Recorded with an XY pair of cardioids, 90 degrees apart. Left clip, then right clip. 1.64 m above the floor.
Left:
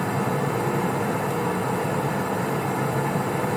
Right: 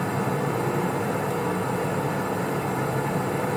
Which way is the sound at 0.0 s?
15° left.